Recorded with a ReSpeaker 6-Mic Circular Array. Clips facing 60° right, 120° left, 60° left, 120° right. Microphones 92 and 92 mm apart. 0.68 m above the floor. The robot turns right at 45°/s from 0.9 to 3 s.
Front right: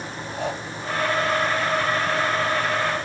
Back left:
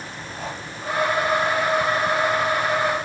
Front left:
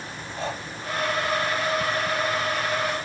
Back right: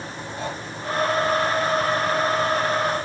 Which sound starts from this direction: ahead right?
Breathing, at 0.4 s.